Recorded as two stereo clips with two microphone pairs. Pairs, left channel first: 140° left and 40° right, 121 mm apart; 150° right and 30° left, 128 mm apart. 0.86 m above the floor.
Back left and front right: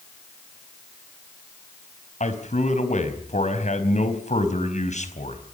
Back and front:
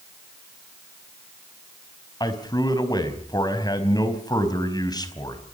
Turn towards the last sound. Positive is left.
turn(degrees=155)